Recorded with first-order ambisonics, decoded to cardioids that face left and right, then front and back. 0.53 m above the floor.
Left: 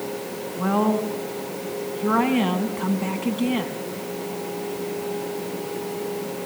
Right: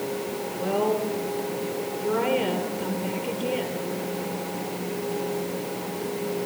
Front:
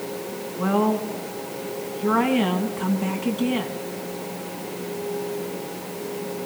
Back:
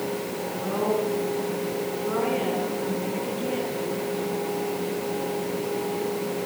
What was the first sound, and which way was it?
A woman speaking, 55° left.